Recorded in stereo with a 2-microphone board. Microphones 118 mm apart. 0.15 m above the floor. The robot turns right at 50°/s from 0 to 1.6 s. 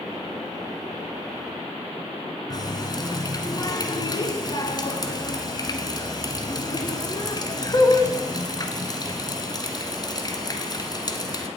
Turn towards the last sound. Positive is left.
turn(degrees=35)  # may be behind; listen again after turning